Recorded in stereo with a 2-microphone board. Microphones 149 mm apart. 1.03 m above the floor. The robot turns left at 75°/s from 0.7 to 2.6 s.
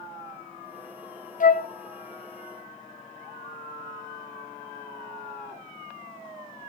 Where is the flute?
55° left (ahead or behind), 0.5 m; by 1.7 s 70° left (ahead or behind), 0.5 m.